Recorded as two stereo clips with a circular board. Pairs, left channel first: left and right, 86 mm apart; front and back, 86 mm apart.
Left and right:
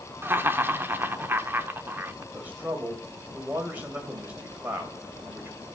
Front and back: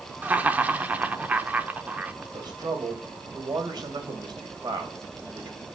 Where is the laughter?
125° right, 0.9 m.